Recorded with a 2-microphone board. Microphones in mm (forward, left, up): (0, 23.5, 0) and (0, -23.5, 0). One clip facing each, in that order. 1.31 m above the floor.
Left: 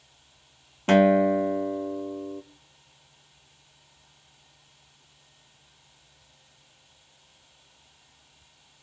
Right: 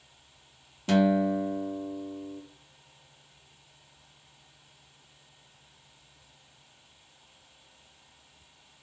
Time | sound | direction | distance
0.9 | a guitar | 45° left (ahead or behind) | 0.6 m